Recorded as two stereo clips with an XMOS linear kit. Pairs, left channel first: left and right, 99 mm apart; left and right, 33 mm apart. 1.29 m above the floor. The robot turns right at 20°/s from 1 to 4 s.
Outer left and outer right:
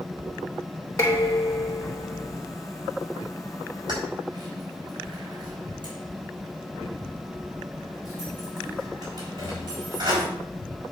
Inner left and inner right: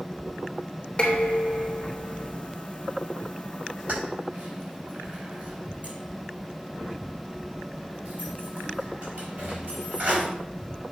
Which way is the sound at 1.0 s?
30° left (ahead or behind).